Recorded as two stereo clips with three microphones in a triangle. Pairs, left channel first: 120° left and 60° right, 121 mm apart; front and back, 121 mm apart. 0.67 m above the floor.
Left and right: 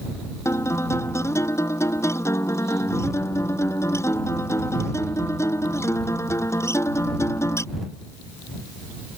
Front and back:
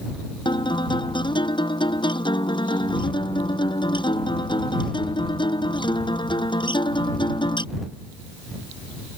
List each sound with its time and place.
0.5 s a guitar: 50° left